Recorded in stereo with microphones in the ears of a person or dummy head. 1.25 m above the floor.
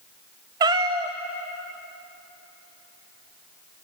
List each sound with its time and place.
0.6 s a cat meowing: 20° right (ahead or behind), 0.5 m